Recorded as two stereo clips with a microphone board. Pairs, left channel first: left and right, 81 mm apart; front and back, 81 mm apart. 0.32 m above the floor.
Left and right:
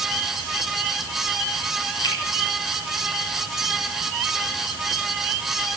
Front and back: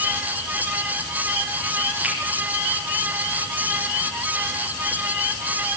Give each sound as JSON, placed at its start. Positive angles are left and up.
{"t": 2.0, "sound": "a finger snap", "azimuth_deg": 105, "distance_m": 4.0}